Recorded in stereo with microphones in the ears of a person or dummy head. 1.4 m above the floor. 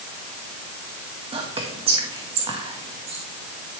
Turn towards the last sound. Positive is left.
turn(degrees=-30)  # may be behind; listen again after turning